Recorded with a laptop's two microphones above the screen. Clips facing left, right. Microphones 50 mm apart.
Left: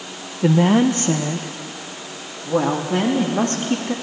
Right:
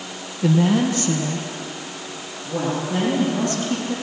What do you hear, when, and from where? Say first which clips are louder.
0.4 s a woman speaking: left 3 dB; 30° left (ahead or behind), 0.7 m; by 3.9 s 45° left (ahead or behind), 2.5 m